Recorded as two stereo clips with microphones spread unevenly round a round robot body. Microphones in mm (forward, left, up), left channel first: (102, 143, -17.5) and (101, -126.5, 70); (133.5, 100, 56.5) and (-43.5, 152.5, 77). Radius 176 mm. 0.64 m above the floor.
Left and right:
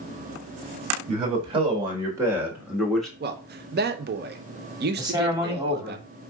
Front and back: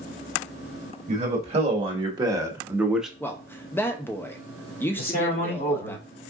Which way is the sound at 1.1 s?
170° right.